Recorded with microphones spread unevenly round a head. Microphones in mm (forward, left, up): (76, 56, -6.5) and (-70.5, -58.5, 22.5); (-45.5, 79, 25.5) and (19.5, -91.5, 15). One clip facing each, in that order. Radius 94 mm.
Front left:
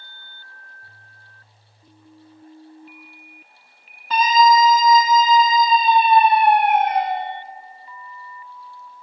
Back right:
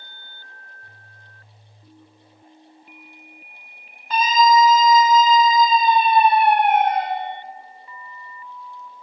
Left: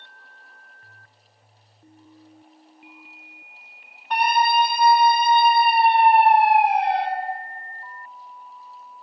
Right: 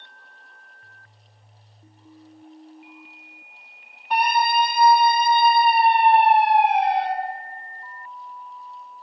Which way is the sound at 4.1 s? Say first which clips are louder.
Front left 1 dB, left 1 dB; 15° left.